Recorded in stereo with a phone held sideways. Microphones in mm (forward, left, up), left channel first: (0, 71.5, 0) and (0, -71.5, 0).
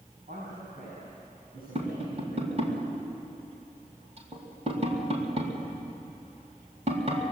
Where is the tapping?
50° right (ahead or behind), 3.5 m.